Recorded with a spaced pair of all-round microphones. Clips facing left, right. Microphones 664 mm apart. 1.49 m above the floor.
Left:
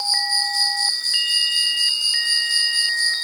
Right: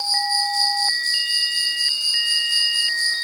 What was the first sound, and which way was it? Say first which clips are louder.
An insect: right 4 dB; 25° left (ahead or behind).